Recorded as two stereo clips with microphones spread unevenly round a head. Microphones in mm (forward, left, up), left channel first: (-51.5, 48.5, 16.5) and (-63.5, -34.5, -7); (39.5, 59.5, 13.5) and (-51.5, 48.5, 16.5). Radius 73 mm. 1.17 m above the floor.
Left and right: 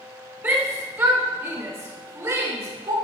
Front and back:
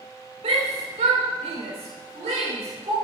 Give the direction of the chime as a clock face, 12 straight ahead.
I don't hear a chime.